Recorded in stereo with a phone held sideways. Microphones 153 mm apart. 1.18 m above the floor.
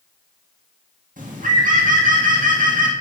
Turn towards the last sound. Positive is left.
turn(degrees=-70)  # may be behind; listen again after turning